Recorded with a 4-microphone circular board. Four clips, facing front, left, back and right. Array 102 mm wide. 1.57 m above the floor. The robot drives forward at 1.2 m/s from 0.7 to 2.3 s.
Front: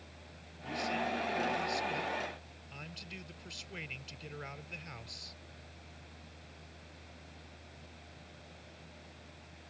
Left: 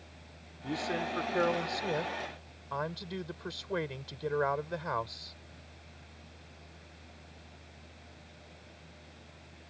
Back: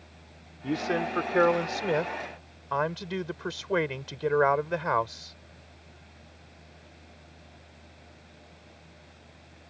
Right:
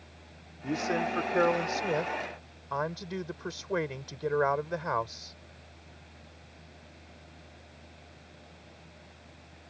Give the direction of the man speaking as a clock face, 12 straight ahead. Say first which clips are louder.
Right 4 dB, back 7 dB; 5 o'clock.